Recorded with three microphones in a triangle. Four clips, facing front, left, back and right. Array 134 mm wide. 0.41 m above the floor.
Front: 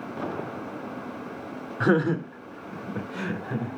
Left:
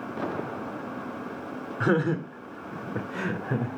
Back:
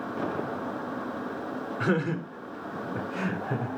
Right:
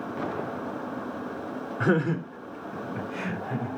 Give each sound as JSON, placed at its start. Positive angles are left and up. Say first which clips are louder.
{"t": 1.8, "sound": "laughter", "louder": "even, front 6 dB", "azimuth_deg": 0, "distance_m": 0.9}